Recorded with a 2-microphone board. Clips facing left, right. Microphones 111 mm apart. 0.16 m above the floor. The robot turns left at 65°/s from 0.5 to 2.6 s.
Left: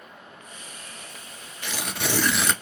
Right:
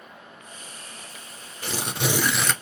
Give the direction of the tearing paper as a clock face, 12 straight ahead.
4 o'clock.